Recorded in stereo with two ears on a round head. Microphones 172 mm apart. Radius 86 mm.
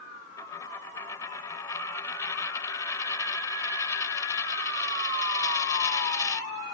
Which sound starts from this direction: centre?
A dropped coin, at 0.4 s.